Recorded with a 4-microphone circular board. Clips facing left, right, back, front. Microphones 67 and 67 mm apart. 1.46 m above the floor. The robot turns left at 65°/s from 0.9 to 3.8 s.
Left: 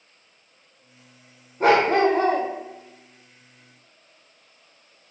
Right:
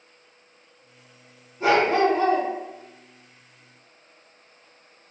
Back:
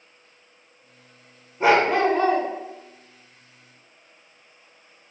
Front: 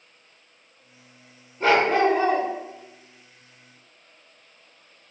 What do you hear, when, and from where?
1.6 s a dog barking: 110° left, 1.7 m; by 2.5 s 55° left, 1.7 m